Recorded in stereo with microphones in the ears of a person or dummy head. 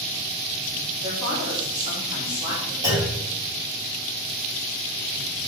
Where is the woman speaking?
25° right (ahead or behind), 3 m; by 2.7 s 20° right (ahead or behind), 4 m.